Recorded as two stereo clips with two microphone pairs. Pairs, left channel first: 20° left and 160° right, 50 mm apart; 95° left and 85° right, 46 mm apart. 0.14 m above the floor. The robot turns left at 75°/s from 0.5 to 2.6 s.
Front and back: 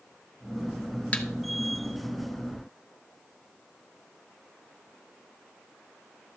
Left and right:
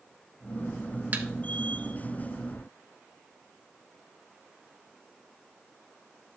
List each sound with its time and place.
1.1 s a thud: 40° right, 1.2 m; by 1.3 s 50° right, 1.2 m